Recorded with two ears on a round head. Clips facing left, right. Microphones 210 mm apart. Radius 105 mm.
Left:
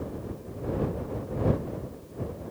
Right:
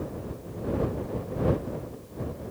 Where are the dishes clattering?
I don't hear dishes clattering.